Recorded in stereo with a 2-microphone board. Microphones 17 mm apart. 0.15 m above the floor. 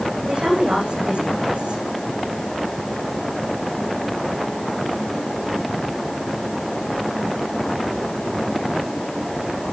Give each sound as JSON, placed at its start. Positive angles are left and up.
{"t": 0.3, "sound": "a woman speaking", "side_deg": -75, "distance_m": 8.5}